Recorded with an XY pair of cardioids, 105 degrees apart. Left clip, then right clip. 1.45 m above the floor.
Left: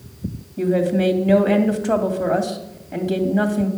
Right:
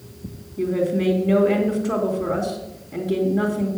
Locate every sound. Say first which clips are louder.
0.6 s a woman speaking: left 3 dB; 65° left, 2.5 m